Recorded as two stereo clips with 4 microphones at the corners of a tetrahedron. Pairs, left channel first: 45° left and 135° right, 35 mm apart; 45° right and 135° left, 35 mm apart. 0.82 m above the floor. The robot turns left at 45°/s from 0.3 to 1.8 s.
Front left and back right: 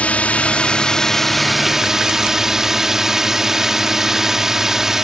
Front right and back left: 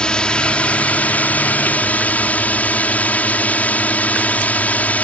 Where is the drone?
10° left; by 5.0 s 60° right.